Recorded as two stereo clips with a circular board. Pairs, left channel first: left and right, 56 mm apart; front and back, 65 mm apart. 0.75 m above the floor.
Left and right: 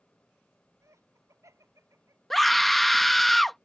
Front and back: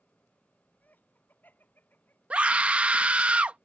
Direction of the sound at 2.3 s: 170° left.